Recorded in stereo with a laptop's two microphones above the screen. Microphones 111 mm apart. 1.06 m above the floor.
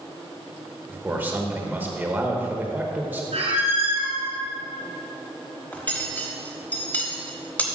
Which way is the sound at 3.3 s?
80° right.